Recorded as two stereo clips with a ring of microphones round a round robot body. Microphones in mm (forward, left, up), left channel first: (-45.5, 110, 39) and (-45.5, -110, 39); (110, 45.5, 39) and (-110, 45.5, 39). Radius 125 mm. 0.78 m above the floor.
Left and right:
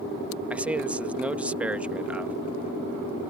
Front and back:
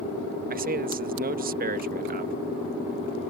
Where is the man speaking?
170° right.